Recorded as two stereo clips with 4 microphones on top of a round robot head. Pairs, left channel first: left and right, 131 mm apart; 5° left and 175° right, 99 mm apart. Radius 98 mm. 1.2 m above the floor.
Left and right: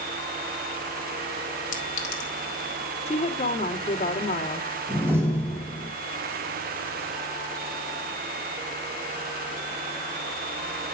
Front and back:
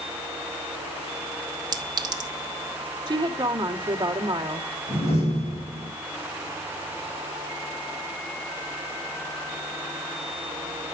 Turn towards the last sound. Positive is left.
turn(degrees=-20)